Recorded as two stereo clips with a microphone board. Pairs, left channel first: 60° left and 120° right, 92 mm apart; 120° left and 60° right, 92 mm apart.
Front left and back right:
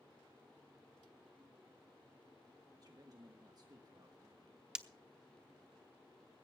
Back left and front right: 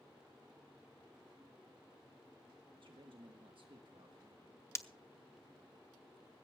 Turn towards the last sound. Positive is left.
turn(degrees=165)